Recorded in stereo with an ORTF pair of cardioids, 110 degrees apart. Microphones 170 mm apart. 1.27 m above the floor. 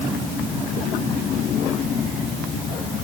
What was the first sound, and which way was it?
Only background noise.